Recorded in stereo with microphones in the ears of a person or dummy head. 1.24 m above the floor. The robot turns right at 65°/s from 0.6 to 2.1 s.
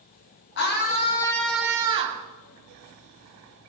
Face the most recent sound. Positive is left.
turn(degrees=-140)